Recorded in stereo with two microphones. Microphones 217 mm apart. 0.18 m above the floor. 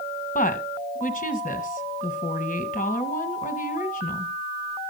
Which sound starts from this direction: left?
A woman speaking, at 0.3 s.